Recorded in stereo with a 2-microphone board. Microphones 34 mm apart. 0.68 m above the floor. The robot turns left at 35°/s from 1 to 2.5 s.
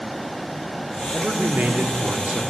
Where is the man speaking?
50° right, 1.4 m; by 2.4 s 95° right, 1.4 m.